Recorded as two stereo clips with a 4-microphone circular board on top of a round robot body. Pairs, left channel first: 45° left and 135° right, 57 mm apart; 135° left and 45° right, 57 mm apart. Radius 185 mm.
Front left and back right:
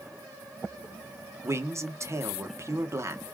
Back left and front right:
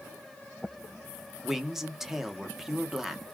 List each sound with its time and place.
1.4 s a man speaking: 125° right, 1.2 m